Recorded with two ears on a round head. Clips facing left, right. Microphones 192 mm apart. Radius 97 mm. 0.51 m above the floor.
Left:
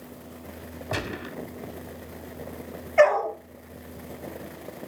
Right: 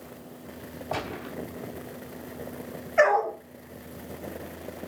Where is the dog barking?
10° right (ahead or behind), 4.5 m.